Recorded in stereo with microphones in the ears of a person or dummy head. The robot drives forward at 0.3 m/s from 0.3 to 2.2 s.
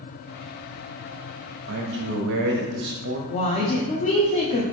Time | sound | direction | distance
1.7 | a man speaking | 75° right (ahead or behind) | 0.9 m
3.3 | a woman speaking | 30° left (ahead or behind) | 0.5 m